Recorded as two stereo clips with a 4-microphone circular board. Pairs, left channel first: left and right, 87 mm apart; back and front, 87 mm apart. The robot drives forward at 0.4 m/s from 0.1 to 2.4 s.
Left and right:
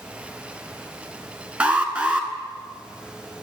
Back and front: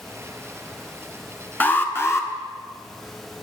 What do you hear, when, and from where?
1.6 s an alarm: 145° right, 1.0 m; by 2.3 s 160° right, 1.1 m